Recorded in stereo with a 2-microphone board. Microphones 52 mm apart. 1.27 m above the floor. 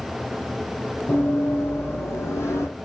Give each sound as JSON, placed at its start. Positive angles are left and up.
{"t": 1.1, "sound": "running footsteps", "side_deg": 45, "distance_m": 3.5}